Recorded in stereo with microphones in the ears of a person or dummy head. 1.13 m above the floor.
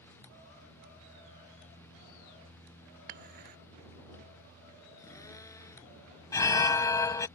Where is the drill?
20° left (ahead or behind).